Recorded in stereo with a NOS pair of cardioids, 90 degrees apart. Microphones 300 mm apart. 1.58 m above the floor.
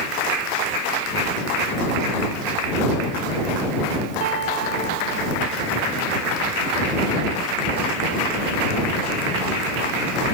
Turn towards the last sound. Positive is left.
turn(degrees=-60)